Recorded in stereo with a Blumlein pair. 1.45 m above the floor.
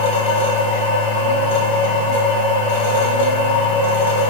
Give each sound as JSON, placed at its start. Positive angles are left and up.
{"t": 0.0, "sound": "a machine running", "azimuth_deg": 50, "distance_m": 1.4}